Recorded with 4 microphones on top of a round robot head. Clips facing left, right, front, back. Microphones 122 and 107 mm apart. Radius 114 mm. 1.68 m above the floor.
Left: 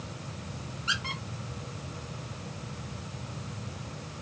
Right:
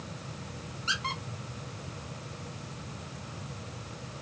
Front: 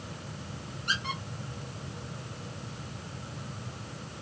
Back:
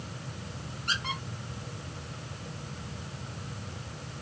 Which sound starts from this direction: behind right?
A squeak, at 0.9 s.